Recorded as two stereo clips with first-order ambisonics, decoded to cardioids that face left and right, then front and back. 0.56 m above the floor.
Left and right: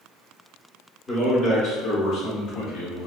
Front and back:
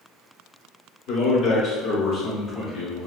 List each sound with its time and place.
1.1 s a man speaking: 25° left, 1.0 m; by 3.1 s 95° left, 1.4 m